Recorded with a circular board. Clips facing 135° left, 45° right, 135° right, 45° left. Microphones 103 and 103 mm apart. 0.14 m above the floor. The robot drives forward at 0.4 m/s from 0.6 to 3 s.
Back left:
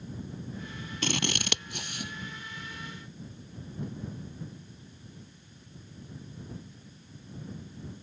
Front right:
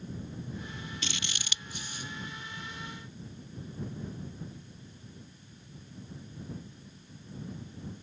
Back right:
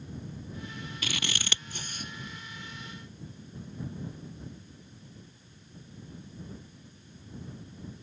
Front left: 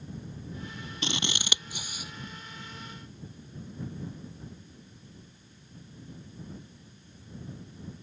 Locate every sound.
1.0 s scissors: 105° left; by 2.1 s 130° left